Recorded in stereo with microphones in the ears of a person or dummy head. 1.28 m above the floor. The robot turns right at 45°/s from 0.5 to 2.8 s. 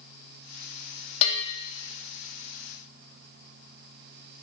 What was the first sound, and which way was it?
A bell, 35° left (ahead or behind).